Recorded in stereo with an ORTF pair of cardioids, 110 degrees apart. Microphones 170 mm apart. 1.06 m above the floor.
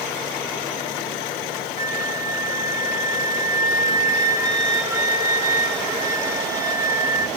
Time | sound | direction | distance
1.8 | a flute | 20° right | 0.8 m